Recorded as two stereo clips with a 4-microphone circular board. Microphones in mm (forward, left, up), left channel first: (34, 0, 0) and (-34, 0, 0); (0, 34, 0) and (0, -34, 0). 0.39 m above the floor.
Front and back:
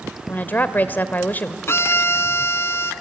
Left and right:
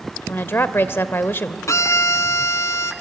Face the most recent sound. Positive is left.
turn(degrees=50)